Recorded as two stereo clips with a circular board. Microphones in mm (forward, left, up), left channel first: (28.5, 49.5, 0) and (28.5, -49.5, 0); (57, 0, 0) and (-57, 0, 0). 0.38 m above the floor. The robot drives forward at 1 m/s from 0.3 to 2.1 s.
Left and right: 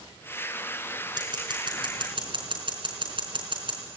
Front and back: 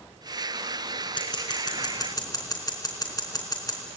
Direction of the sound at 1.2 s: 50° right.